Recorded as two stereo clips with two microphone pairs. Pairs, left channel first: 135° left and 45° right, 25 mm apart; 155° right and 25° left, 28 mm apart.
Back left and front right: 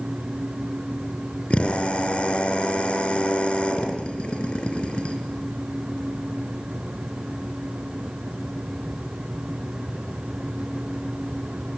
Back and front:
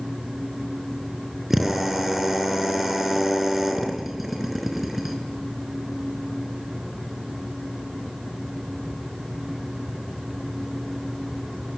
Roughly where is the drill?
Left.